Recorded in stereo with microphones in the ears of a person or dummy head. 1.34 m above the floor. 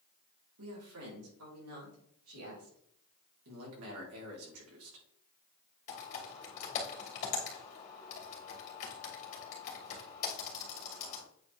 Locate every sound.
0.6 s a man speaking: 85° right, 3.5 m; by 2.8 s 80° right, 4.5 m
3.5 s a man speaking: 80° right, 3.5 m
5.9 s typing on a keyboard: 45° left (ahead or behind), 2.5 m